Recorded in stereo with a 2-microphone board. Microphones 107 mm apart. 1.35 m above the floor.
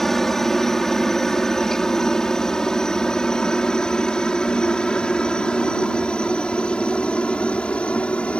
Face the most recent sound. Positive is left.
turn(degrees=10)  # may be behind; listen again after turning